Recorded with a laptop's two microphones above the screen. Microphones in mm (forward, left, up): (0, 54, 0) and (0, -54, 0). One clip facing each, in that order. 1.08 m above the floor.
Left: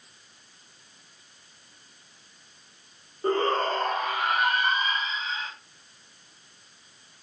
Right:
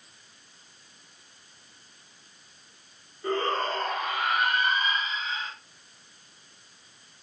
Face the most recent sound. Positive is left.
turn(degrees=25)  # may be behind; listen again after turning